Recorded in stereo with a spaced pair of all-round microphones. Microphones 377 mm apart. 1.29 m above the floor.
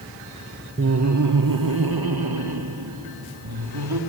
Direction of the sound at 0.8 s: 35° right (ahead or behind).